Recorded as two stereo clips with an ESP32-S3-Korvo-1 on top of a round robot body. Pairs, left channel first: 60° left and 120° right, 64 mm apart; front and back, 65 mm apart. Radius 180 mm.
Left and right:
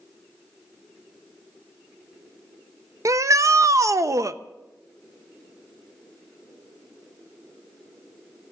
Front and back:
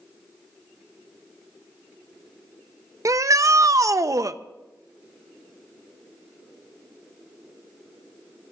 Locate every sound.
3.0 s a shout: 155° right, 0.8 m